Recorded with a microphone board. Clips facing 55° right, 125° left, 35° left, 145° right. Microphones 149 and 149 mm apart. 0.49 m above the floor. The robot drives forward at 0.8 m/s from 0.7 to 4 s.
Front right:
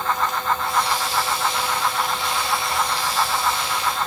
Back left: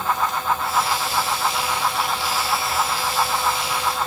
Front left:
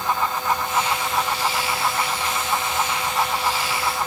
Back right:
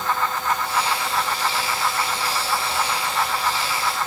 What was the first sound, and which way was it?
Only background noise.